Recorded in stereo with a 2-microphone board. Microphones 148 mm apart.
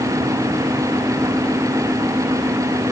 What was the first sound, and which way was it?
Only background noise.